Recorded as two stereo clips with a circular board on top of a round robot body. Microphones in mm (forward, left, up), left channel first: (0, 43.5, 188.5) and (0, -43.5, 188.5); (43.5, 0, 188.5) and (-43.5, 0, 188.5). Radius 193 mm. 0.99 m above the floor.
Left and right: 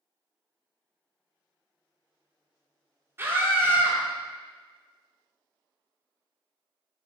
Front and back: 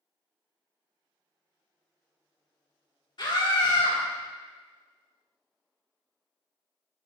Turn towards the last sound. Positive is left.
turn(degrees=-30)